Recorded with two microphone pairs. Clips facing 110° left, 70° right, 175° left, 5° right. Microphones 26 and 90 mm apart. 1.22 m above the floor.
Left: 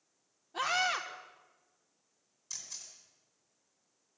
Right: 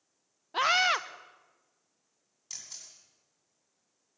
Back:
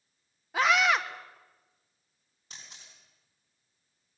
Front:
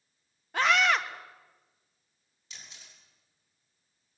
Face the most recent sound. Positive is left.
turn(degrees=-130)